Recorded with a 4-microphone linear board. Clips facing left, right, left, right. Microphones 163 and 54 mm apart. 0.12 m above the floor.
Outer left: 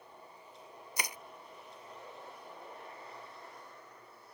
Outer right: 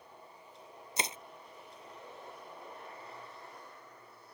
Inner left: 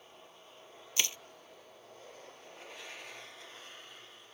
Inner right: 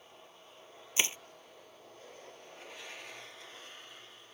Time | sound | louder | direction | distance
1.0 | crushing | outer right 3 dB, inner right 2 dB | 25° right (ahead or behind) | ?